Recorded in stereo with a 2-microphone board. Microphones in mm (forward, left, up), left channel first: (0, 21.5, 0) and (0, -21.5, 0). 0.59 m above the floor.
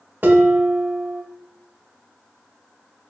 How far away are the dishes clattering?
About 0.7 m.